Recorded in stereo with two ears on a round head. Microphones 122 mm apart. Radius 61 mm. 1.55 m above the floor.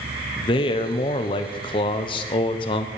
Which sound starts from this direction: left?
A man speaking, at 0.4 s.